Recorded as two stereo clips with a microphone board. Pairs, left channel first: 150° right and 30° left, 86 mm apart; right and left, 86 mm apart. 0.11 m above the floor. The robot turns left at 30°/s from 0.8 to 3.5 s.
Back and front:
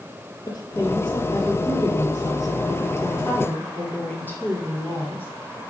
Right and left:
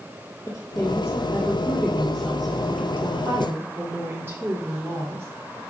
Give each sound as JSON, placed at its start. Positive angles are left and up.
{"t": 0.5, "sound": "a woman speaking", "azimuth_deg": -135, "distance_m": 2.5}